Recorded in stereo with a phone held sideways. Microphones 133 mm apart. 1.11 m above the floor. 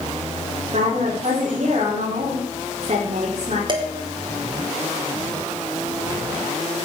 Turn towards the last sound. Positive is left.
turn(degrees=-35)  # may be behind; listen again after turning